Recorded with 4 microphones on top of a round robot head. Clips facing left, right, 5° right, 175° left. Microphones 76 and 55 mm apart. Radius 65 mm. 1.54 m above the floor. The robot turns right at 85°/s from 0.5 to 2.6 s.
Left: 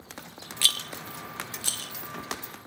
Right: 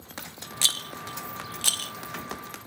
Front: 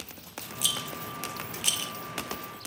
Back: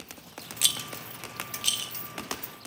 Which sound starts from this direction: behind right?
A rattle, at 0.6 s.